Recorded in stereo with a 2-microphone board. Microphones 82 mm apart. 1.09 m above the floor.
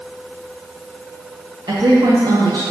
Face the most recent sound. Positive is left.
turn(degrees=-65)  # may be behind; listen again after turning